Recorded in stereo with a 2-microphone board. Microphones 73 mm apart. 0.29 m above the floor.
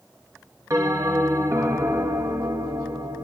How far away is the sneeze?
No sneeze in this recording.